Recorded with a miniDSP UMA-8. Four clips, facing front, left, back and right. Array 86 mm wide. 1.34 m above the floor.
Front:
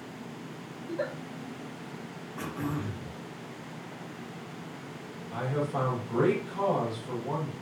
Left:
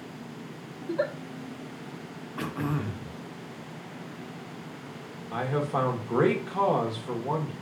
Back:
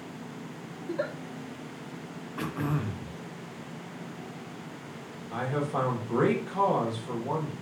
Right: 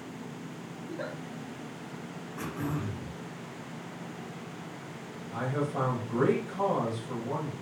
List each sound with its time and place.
0.8 s a giggle: 110° left, 1.3 m
2.4 s throat clearing: 125° left, 0.6 m
5.3 s a man speaking: 105° left, 1.3 m